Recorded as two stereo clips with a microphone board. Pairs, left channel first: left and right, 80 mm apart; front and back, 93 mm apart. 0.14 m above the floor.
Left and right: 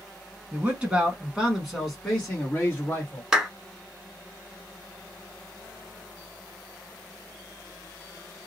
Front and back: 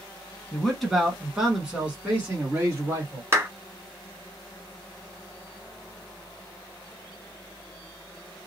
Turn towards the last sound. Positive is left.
turn(degrees=-160)